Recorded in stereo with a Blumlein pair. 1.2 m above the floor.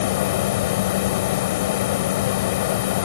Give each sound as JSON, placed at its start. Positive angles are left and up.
{"t": 0.0, "sound": "a machine running", "azimuth_deg": 55}